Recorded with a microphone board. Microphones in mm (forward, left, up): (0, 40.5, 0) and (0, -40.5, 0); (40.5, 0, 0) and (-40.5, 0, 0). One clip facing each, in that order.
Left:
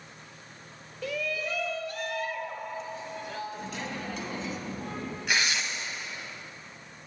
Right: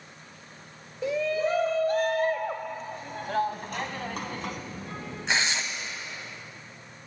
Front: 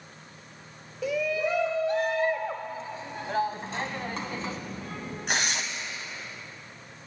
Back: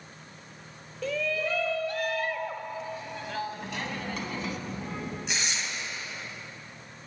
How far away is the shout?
About 0.8 m.